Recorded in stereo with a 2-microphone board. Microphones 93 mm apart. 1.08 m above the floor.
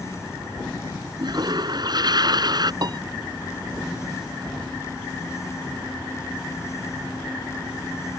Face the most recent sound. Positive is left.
turn(degrees=-50)  # may be behind; listen again after turning